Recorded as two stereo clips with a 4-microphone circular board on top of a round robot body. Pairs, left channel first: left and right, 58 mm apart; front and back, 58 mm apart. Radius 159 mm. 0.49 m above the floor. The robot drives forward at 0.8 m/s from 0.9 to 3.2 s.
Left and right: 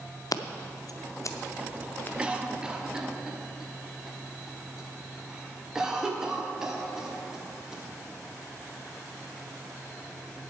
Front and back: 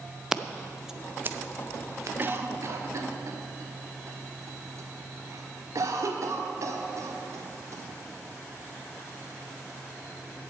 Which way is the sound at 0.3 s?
100° left.